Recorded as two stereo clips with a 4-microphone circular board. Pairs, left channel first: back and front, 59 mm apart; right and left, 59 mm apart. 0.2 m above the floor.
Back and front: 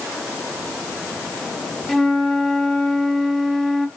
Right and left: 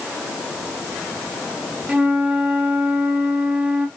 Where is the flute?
90° left, 0.6 m.